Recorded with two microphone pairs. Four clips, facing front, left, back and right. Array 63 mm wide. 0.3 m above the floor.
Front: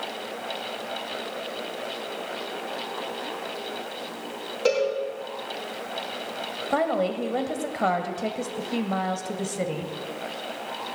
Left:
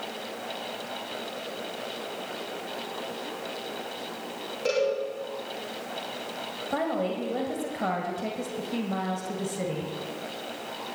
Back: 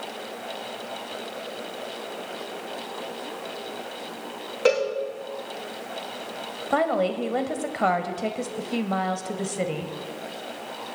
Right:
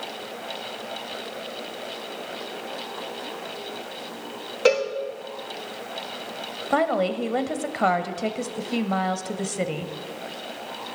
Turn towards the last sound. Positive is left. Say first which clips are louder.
# right 6 dB, back 1 dB
turn(degrees=-110)